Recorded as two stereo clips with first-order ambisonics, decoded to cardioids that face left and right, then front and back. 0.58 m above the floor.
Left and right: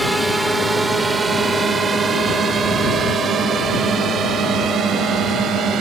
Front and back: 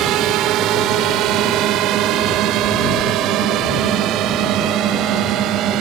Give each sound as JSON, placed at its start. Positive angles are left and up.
{"t": 0.0, "sound": "a drone", "azimuth_deg": -170}